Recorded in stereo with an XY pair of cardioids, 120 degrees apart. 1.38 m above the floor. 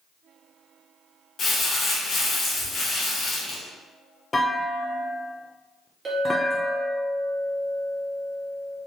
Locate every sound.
1.4 s crumpling: 40° left, 1.5 m
4.3 s a clunk: 20° left, 0.7 m
6.0 s a clink: 30° right, 1.8 m